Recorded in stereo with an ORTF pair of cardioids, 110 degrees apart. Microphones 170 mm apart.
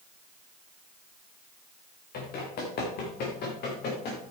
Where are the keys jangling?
No keys jangling in this recording.